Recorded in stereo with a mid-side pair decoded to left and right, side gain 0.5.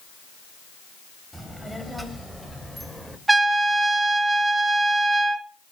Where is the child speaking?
Straight ahead, 4.5 m; by 3.2 s 5° right, 3 m.